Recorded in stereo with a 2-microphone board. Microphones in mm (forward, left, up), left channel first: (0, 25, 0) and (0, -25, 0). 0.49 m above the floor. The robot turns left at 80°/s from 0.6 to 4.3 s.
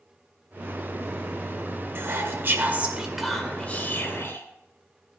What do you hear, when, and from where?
1.9 s whispering: 75° right, 2 m; by 4.5 s 95° left, 2 m